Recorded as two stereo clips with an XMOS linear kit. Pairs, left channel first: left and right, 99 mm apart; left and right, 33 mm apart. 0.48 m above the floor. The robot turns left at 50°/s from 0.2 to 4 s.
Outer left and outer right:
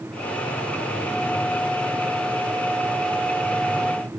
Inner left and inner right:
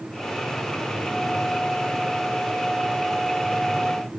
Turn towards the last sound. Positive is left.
No sound to turn to.